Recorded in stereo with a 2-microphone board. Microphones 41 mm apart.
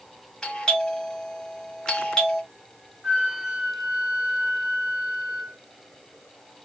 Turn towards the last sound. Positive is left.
turn(degrees=-15)  # may be behind; listen again after turning